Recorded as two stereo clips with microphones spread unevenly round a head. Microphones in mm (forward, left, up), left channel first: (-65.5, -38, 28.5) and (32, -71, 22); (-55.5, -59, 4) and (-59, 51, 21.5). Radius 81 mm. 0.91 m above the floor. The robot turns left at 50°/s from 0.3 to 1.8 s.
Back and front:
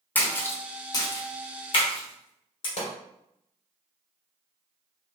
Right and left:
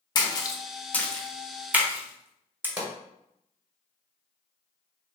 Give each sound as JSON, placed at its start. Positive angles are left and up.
{"t": 0.1, "sound": "a splash", "azimuth_deg": -135, "distance_m": 0.7}
{"t": 2.8, "sound": "a pop", "azimuth_deg": 165, "distance_m": 1.8}